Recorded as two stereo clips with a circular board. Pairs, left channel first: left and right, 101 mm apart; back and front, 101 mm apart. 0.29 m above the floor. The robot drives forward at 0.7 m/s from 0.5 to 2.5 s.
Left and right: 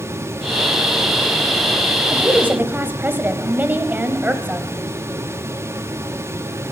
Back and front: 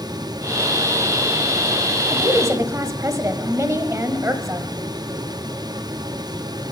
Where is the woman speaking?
25° right, 1.3 m; by 4.7 s 30° right, 1.2 m.